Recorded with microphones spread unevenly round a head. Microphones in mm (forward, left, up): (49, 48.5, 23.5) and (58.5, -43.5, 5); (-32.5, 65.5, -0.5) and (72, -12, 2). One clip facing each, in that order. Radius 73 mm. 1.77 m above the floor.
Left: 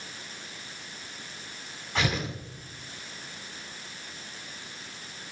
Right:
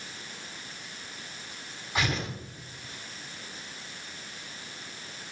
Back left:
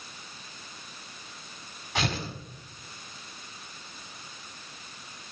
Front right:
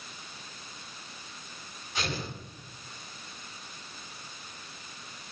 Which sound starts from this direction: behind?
Tearing paper, at 1.9 s.